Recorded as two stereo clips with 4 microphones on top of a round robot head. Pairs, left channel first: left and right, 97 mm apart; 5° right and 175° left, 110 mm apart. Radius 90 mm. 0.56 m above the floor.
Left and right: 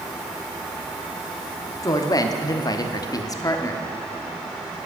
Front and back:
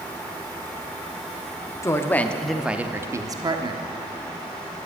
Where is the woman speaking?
45° left, 0.9 m; by 3.8 s 145° left, 1.1 m.